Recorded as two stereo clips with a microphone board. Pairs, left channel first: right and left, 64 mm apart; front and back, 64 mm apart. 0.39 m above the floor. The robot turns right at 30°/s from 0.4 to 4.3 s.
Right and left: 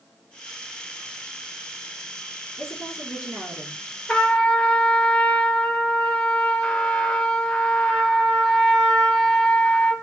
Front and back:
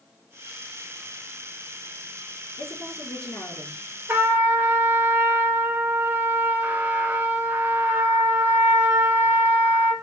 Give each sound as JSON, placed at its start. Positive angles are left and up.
{"t": 2.6, "sound": "a woman speaking", "azimuth_deg": -5, "distance_m": 5.0}
{"t": 4.1, "sound": "a trumpet", "azimuth_deg": -160, "distance_m": 1.1}